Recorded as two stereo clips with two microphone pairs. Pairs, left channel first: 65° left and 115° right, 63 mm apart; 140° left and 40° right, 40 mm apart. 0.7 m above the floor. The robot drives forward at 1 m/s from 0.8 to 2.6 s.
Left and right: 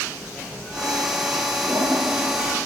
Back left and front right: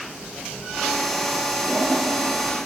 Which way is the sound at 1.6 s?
90° right.